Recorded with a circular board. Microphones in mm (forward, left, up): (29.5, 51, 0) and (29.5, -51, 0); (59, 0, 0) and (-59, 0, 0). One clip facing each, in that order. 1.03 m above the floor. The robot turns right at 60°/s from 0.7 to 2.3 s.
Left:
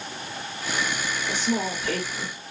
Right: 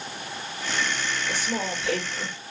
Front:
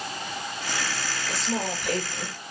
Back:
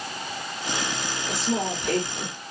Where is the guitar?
I don't hear a guitar.